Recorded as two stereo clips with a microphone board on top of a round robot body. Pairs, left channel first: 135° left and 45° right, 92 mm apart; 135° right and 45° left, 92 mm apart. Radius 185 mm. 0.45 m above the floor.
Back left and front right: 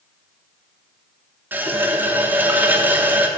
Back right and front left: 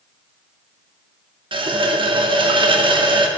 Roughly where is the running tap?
Ahead left.